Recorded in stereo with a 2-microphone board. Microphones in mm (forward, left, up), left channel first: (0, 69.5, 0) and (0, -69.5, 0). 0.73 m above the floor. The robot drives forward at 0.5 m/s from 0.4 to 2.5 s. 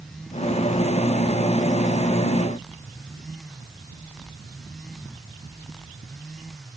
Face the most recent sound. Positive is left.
No sound to turn to.